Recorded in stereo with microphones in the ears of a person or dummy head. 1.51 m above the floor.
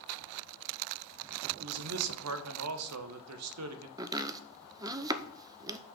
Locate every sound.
1.6 s a man speaking: 90° right, 1.0 m
4.0 s chopping: 20° right (ahead or behind), 0.6 m